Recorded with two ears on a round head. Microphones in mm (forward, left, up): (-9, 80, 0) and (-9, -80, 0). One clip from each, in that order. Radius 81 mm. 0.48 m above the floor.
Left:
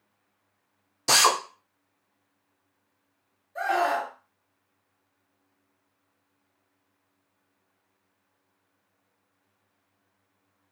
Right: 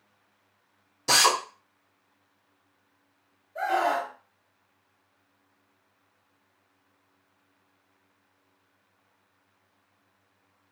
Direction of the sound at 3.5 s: 40° left (ahead or behind).